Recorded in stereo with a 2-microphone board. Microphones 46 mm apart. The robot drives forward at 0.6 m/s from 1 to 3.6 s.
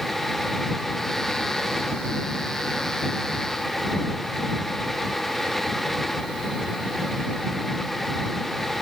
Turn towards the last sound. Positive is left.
No sound to turn to.